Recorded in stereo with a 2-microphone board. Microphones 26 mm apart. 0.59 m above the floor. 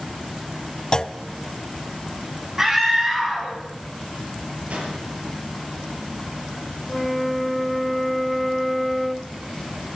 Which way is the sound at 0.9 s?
30° left (ahead or behind).